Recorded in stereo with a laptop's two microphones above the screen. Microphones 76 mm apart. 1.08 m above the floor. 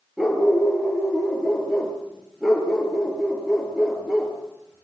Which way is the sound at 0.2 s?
5° right (ahead or behind).